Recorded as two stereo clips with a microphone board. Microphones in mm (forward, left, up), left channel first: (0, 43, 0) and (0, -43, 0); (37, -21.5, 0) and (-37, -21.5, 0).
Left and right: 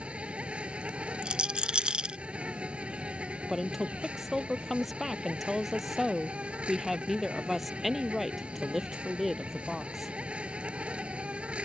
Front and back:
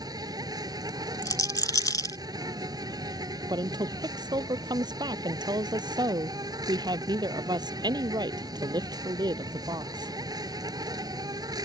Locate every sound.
0.0 s an insect: 165° right
1.2 s a rattle: 15° right
3.5 s a woman speaking: straight behind